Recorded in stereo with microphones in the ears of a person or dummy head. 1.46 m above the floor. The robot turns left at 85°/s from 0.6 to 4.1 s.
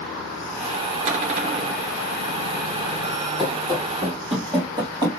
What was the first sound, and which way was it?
A cupboard door, 70° right.